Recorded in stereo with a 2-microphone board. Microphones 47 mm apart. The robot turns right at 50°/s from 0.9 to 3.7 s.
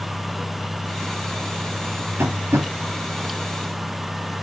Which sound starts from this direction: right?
Tapping, at 2.2 s.